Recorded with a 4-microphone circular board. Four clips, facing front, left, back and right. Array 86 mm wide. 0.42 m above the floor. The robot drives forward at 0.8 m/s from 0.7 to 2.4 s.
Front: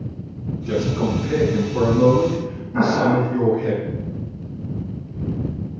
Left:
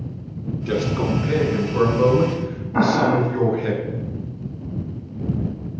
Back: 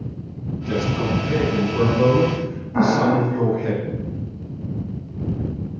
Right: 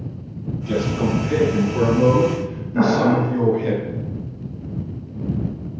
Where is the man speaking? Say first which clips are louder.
Right 1 dB, front 1 dB; 85° left, 5 m; by 3.7 s 100° left, 5.5 m.